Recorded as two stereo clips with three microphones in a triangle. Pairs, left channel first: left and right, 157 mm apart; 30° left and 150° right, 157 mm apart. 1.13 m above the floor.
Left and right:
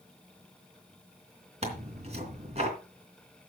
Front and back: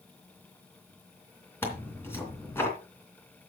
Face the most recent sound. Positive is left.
turn(degrees=-45)